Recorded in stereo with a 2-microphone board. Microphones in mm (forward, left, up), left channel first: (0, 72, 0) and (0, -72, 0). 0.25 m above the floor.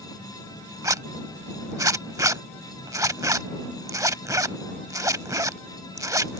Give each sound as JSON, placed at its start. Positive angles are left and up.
{"t": 0.8, "sound": "a zipper", "side_deg": -25}